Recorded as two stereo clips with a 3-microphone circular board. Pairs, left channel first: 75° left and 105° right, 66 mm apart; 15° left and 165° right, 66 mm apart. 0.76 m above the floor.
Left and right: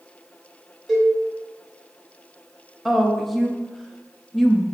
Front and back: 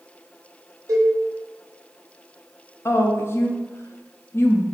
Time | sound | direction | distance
0.9 | a cowbell | 160° left | 1.9 m
2.9 | a woman speaking | 15° right | 0.5 m